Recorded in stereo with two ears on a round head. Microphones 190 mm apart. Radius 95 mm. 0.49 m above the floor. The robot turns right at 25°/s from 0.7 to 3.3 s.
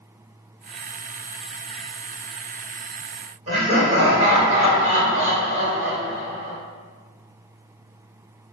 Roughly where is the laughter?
Right.